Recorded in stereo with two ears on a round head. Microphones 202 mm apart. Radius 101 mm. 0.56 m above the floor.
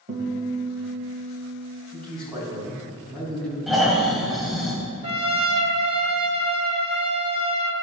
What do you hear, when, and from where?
0.1 s a guitar: 40° right (ahead or behind), 1.7 m
1.9 s a man speaking: 5° left (ahead or behind), 3.5 m
3.7 s snoring: centre (ahead or behind), 1.8 m
5.0 s a trumpet: 25° right (ahead or behind), 1.3 m